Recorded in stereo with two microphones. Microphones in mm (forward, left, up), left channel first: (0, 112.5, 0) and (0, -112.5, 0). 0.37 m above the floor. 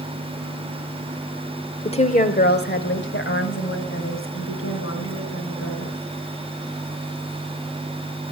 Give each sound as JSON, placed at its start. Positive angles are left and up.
{"t": 1.9, "sound": "a woman speaking", "side_deg": 25, "distance_m": 0.9}